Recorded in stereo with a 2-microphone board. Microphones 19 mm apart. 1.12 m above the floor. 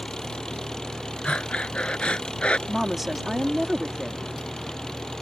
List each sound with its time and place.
0.0 s an engine running: 35° left (ahead or behind)
1.2 s breathing: 70° left (ahead or behind)
2.7 s a woman speaking: 15° right (ahead or behind)